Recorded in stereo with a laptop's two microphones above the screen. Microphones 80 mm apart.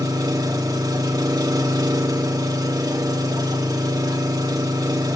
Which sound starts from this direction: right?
An engine running, at 0.0 s.